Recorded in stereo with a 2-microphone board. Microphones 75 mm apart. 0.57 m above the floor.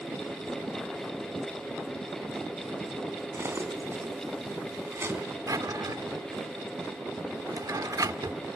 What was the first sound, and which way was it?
Cutlery clinking, 35° right (ahead or behind).